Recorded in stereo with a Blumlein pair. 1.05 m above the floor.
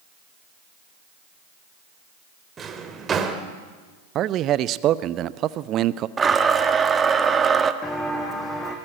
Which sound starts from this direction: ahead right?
A man speaking, at 4.2 s.